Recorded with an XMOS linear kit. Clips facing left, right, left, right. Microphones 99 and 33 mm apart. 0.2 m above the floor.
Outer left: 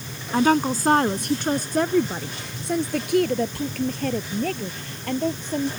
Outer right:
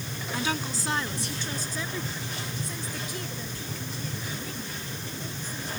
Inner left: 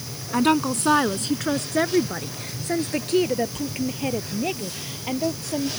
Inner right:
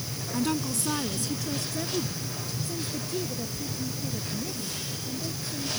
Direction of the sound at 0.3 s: 50° left (ahead or behind).